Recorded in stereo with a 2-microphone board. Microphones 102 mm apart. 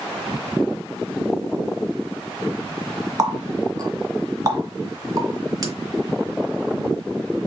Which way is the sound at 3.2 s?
40° right (ahead or behind).